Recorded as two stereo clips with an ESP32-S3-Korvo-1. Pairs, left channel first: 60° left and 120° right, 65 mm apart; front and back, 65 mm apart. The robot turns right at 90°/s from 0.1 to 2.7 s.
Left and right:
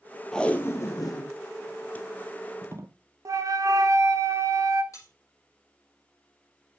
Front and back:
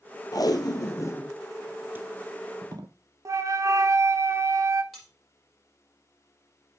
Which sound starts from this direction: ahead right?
Tape being pulled, at 0.3 s.